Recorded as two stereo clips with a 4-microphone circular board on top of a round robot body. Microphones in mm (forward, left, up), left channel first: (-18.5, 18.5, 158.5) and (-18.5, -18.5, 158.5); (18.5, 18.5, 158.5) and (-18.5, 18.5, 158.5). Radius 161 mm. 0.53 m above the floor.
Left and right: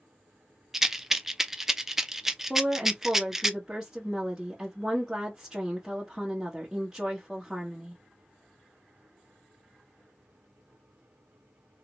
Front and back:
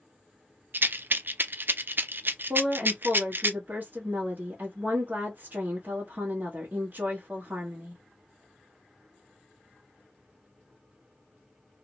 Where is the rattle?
170° right, 0.7 m.